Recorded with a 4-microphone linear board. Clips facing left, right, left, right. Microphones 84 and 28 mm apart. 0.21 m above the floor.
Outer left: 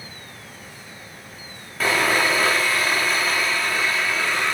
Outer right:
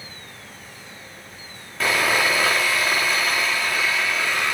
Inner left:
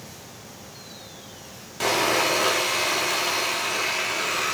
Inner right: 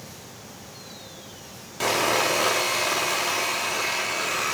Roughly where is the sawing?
Centre.